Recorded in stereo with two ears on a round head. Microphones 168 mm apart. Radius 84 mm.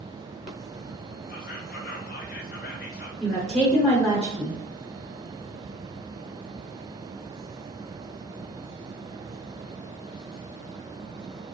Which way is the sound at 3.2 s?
5° left (ahead or behind).